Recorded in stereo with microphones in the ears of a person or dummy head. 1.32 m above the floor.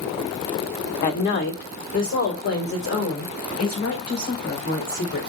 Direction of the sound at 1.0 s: 50° left (ahead or behind).